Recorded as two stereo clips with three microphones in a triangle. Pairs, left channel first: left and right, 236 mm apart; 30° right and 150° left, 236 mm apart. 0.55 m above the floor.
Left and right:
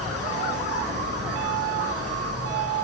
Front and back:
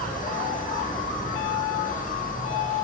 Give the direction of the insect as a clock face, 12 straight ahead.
3 o'clock.